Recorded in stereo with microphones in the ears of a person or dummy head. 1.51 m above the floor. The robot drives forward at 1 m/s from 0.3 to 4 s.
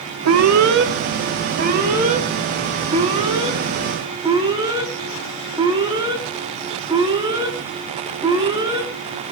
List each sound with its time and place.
0.2 s an alarm: 80° right, 1.5 m; by 8.9 s 20° right (ahead or behind), 4.5 m